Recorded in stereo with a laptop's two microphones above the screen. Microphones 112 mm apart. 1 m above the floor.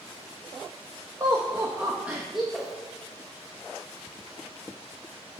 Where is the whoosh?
Centre (ahead or behind), 1.4 m.